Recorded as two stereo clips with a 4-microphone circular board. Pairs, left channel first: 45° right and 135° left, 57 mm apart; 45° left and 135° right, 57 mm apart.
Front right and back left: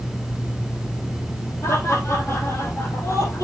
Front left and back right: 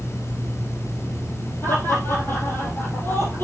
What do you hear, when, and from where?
1.6 s laughter: 5° right, 4 m